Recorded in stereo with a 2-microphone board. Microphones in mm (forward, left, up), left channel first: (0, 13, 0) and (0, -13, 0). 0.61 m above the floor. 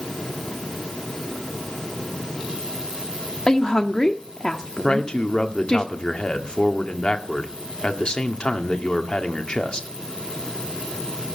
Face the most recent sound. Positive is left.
turn(degrees=35)  # may be behind; listen again after turning